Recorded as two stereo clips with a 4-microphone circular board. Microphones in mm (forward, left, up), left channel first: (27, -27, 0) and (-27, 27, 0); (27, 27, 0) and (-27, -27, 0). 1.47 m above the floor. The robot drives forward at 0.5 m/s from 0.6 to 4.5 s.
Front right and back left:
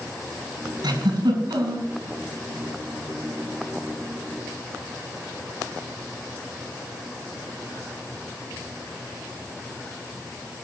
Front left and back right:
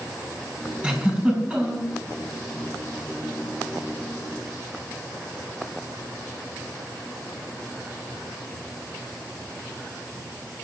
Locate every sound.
0.8 s a giggle: 150° left, 5.5 m; by 1.9 s 155° left, 5.5 m